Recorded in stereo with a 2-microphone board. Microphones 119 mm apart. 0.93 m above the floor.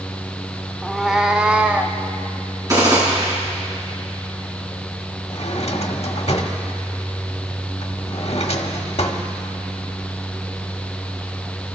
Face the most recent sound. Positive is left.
turn(degrees=60)  # may be behind; listen again after turning